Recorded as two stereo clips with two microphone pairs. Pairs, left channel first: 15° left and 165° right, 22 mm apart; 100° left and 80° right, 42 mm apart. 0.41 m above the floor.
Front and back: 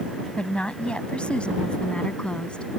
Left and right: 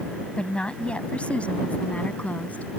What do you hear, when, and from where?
0.4 s a woman speaking: 35° left; by 2.7 s 45° left